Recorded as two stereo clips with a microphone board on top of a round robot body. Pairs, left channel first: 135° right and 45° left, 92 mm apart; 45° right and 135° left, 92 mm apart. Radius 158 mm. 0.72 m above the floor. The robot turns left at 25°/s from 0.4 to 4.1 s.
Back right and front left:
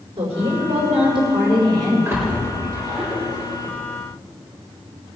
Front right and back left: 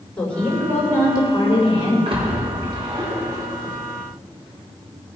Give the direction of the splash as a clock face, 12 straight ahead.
8 o'clock.